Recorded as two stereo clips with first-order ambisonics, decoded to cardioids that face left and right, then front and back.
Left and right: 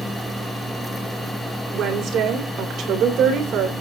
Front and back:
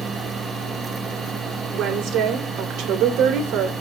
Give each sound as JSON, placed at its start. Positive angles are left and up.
{"t": 1.7, "sound": "a woman speaking", "azimuth_deg": -140, "distance_m": 3.0}